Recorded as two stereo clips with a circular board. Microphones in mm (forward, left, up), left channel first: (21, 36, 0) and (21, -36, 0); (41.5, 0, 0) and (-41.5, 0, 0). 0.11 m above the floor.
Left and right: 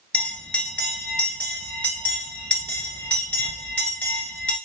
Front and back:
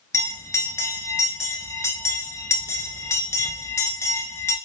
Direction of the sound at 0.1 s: 30° left.